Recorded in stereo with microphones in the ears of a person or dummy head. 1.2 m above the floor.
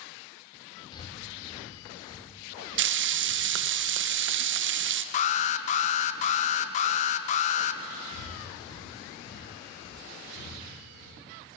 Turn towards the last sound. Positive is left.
turn(degrees=70)  # may be behind; listen again after turning